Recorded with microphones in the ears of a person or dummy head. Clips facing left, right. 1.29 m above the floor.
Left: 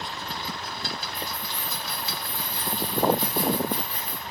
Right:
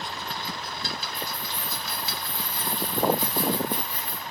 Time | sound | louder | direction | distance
1.1 | keys jangling | even | 50° right (ahead or behind) | 1.3 m